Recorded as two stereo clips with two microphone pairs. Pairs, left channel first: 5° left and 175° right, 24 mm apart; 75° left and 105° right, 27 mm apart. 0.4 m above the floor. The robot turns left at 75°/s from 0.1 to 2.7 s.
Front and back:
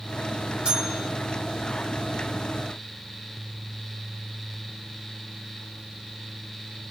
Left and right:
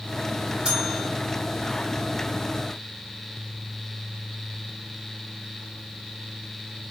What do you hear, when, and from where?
0.7 s a bell: 150° right, 2.5 m; by 1.1 s straight behind, 2.5 m